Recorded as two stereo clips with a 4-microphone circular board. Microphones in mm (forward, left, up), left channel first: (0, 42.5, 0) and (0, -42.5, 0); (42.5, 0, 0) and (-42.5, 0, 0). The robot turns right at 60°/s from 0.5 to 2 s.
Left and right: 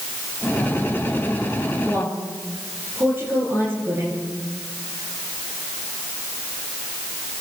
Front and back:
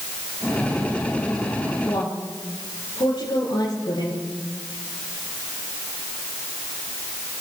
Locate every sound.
1.9 s a woman speaking: 40° right, 8 m; by 4.2 s 30° right, 8 m